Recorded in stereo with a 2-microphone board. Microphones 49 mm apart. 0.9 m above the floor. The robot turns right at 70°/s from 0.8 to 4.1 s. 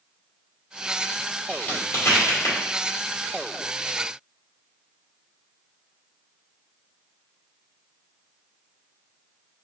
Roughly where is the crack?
Left.